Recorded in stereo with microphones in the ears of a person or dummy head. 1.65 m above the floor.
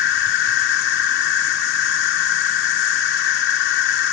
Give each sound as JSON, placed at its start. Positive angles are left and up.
{"t": 0.0, "sound": "an insect", "side_deg": 60}